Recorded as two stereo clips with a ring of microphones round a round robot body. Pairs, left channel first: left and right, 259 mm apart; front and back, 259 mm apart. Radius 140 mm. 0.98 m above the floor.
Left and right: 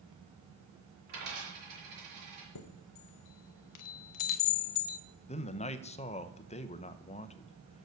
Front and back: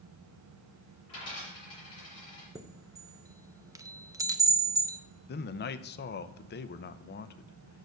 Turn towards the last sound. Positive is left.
turn(degrees=35)